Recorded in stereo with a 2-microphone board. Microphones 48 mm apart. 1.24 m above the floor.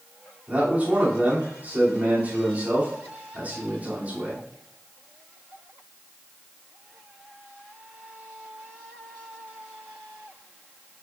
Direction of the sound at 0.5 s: 35° right (ahead or behind).